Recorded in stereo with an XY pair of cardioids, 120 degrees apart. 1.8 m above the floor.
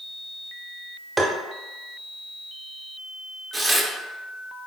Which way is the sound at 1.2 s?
15° right.